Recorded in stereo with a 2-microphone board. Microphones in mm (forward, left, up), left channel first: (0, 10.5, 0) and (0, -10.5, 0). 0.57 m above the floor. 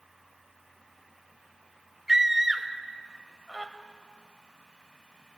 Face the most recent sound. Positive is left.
turn(degrees=-15)  # may be behind; listen again after turning